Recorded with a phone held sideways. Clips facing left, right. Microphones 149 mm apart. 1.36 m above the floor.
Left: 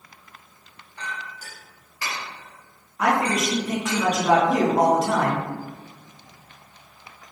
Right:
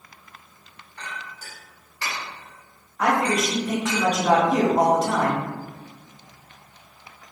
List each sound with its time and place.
1.0 s a clink: 10° left (ahead or behind), 1.5 m
3.0 s a man speaking: 5° left (ahead or behind), 1.5 m